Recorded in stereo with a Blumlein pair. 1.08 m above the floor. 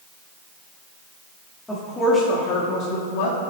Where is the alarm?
No alarm in this recording.